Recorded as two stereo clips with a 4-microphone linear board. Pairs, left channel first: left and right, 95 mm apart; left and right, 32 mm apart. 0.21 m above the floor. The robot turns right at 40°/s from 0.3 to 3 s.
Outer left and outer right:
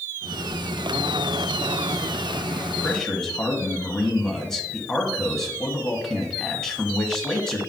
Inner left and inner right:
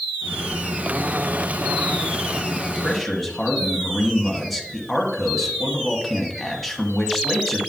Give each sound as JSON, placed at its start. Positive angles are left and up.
{"t": 2.8, "sound": "a man speaking", "side_deg": 10, "distance_m": 1.2}